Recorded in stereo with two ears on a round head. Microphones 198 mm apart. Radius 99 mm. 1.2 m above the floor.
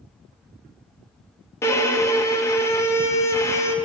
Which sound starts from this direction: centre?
A violin, at 1.6 s.